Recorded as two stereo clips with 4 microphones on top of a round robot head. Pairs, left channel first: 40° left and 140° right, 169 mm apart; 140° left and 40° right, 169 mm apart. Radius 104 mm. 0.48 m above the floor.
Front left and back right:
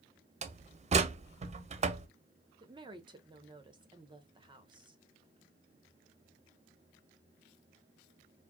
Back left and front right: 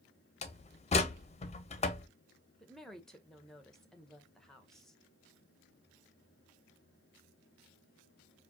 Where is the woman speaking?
135° right, 1.0 m.